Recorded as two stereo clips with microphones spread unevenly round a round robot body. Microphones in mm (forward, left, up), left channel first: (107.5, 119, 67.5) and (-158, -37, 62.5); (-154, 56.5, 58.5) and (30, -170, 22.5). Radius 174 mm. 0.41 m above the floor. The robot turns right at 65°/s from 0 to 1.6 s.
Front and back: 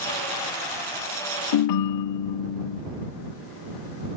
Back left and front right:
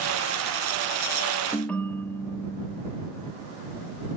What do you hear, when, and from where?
1.5 s a ringtone: 35° left; by 2.8 s 40° left